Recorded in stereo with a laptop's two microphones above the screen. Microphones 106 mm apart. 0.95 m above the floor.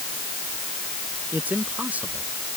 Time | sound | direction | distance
1.3 | a man speaking | 15° right (ahead or behind) | ?